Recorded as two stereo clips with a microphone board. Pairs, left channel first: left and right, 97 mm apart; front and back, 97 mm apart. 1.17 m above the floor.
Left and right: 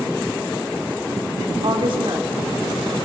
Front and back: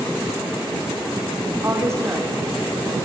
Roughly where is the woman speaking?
Behind right.